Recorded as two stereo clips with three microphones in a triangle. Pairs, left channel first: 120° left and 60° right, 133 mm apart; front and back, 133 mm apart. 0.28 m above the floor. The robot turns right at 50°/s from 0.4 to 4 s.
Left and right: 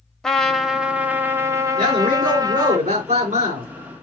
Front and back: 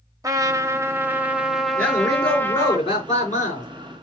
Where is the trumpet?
160° right, 0.9 m; by 2.8 s 40° right, 0.9 m.